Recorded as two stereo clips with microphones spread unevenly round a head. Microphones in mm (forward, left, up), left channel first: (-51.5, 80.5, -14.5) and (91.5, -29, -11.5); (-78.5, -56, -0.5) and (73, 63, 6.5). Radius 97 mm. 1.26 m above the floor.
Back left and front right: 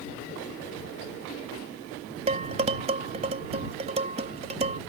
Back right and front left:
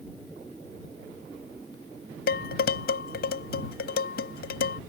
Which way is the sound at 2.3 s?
100° right.